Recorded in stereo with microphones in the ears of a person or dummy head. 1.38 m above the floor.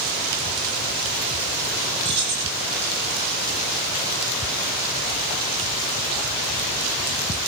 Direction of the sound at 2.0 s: 30° right (ahead or behind).